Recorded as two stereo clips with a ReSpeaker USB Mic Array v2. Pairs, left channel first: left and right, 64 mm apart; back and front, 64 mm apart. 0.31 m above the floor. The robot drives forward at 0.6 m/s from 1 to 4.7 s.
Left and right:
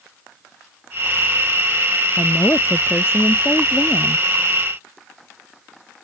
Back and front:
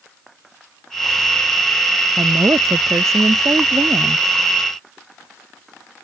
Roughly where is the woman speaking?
Ahead left.